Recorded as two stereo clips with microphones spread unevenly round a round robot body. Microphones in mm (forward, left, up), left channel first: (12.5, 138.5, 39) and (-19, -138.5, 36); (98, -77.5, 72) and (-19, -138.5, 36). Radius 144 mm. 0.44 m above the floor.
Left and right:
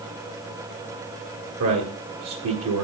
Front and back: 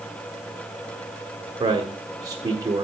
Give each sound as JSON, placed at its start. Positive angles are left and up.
{"t": 1.6, "sound": "a man speaking", "azimuth_deg": -110, "distance_m": 1.8}